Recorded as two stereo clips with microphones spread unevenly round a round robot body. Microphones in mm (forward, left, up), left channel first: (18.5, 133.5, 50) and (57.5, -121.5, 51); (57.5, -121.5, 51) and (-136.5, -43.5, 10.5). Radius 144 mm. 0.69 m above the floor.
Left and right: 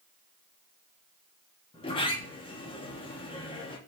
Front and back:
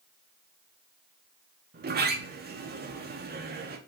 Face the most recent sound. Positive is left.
turn(degrees=165)